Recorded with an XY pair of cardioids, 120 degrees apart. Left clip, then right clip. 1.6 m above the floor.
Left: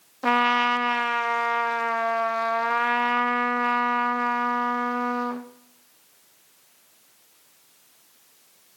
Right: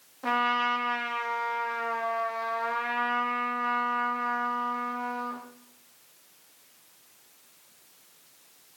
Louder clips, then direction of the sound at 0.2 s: Left 5 dB; 45° left.